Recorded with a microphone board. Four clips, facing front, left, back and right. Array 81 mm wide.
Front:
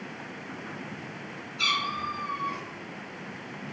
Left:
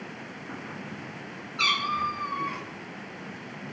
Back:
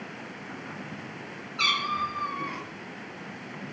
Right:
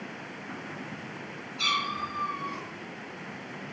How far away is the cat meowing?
About 5.5 m.